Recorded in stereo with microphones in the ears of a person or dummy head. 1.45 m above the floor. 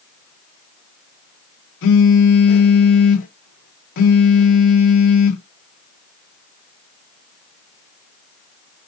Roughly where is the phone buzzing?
Left.